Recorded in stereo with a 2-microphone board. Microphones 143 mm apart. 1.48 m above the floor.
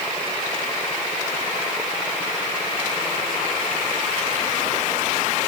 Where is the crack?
I don't hear a crack.